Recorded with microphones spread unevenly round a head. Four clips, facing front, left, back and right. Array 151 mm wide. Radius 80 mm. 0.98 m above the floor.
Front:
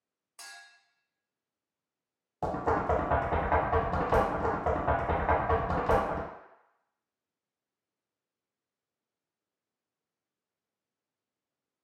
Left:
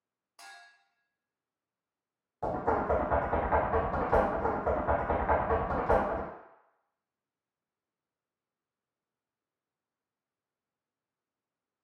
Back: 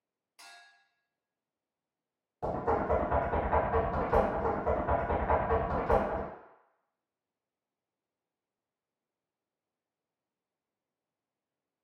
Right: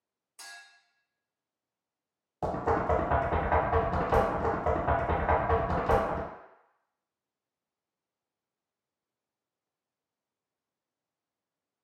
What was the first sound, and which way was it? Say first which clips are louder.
A clink: right 1 dB, front 4 dB; 40° left.